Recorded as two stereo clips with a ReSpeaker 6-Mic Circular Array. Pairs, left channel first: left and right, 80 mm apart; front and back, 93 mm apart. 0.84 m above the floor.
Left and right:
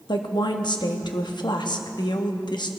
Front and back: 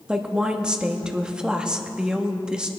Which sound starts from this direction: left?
A woman speaking, at 0.1 s.